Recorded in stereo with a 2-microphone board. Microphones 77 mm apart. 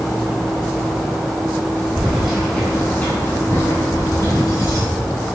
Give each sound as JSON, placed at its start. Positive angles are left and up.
{"t": 1.9, "sound": "keys jangling", "side_deg": -10, "distance_m": 3.0}